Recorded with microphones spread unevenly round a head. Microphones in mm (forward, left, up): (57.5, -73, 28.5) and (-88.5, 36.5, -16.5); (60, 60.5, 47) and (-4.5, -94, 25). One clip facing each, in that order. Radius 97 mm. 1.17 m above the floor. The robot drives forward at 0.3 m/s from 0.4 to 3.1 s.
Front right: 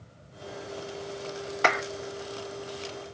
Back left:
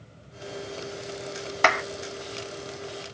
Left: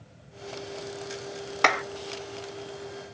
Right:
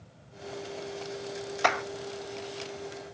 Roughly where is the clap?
Left.